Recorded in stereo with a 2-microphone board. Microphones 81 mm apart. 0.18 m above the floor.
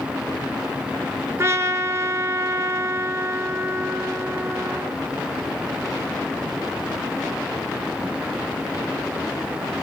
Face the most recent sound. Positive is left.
turn(degrees=-35)  # may be behind; listen again after turning